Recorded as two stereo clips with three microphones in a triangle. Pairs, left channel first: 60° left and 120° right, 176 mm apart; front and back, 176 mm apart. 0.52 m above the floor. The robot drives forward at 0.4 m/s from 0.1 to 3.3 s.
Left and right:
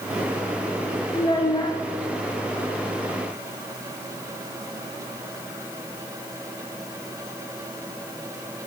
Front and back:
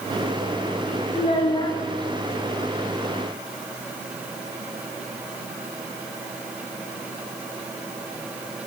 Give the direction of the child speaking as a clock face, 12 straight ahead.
11 o'clock.